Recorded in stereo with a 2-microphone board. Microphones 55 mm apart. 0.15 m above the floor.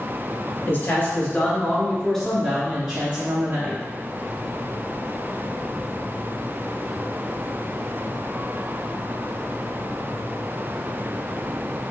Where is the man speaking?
40° left (ahead or behind), 2.0 m; by 3.8 s 40° right (ahead or behind), 1.8 m.